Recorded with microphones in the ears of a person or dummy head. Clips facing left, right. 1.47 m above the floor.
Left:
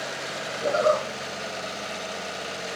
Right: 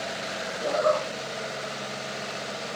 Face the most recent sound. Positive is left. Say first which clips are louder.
# left 2 dB
turn(degrees=10)  # may be behind; listen again after turning